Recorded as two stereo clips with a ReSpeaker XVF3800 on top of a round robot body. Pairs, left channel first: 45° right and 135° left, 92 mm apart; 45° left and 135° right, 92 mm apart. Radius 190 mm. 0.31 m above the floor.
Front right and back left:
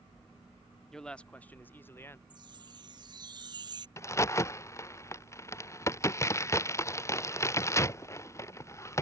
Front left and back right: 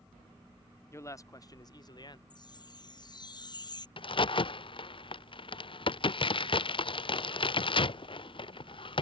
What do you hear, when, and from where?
0.9 s a man speaking: 35° left; by 2.2 s 15° left
2.3 s a chime: 90° left
4.0 s a crack: 15° left